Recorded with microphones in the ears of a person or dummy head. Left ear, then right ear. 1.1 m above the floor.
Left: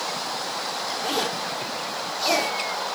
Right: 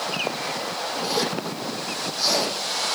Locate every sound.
1.0 s a zipper: 35° left (ahead or behind), 9 m